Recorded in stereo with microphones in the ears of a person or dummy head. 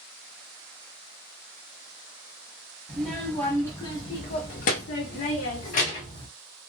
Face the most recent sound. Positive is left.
turn(degrees=40)  # may be behind; listen again after turning